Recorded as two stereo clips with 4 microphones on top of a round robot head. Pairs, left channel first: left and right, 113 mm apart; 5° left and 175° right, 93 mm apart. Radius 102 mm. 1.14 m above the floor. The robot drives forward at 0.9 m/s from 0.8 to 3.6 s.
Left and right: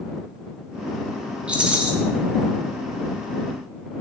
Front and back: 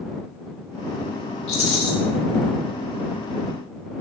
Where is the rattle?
10° right, 4.5 m.